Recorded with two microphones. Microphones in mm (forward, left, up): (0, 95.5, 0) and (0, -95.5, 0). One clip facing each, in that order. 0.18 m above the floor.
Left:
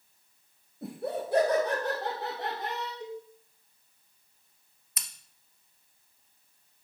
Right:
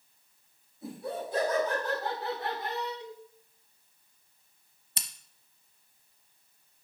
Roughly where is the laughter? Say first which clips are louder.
Left 3 dB; left.